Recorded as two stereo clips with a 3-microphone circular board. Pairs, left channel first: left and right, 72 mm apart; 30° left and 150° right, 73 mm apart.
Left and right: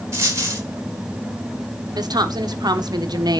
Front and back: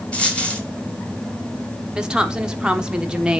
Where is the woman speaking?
70° right, 1.2 m.